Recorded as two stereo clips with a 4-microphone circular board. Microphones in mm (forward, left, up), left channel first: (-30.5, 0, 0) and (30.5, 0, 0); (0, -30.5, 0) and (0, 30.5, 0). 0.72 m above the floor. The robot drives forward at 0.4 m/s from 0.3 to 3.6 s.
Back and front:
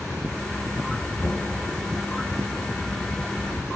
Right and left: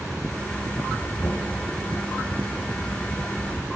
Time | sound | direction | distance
1.2 | knocking | 140° right | 5 m